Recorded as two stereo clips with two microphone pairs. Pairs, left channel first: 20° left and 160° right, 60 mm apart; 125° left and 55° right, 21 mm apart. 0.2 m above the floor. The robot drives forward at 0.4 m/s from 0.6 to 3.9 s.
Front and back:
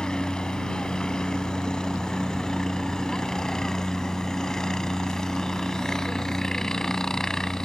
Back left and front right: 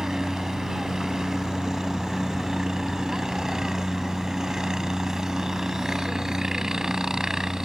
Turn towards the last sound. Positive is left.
turn(degrees=-45)